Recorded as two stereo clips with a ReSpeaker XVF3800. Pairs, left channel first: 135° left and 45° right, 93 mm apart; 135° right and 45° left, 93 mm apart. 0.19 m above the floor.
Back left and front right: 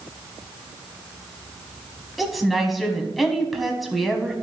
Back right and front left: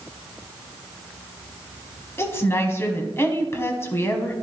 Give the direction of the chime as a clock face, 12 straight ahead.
No chime in this recording.